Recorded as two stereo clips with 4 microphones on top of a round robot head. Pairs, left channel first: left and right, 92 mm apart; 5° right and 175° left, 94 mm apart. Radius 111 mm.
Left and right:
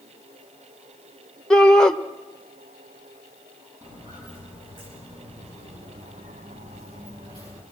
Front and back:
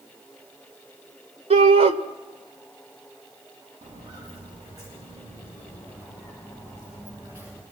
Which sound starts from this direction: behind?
A shout, at 1.5 s.